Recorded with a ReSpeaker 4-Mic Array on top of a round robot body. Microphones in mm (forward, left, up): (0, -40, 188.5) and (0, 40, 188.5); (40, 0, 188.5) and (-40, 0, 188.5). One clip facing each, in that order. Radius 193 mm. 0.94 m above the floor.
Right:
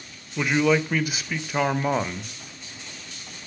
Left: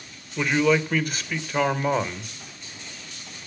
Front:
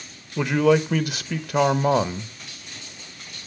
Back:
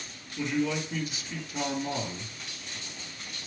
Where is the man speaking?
5° right, 1.2 m.